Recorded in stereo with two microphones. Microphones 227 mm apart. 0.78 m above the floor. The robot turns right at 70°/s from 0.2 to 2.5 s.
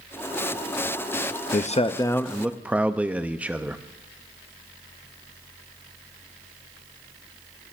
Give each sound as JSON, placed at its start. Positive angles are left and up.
{"t": 1.5, "sound": "a man speaking", "azimuth_deg": 120, "distance_m": 0.5}